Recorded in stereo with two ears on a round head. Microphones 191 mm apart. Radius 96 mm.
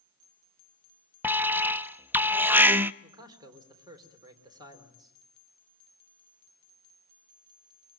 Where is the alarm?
10° right (ahead or behind), 0.6 m.